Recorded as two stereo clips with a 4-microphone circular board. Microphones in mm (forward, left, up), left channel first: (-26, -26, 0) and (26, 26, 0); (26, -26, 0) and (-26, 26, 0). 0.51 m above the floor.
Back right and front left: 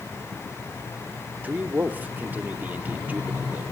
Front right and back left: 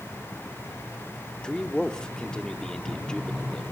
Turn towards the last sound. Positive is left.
turn(degrees=20)